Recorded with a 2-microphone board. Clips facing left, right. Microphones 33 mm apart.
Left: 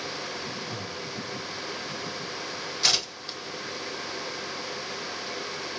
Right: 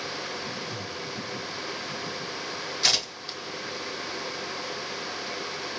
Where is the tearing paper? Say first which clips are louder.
Even; 5° right (ahead or behind), 0.8 m.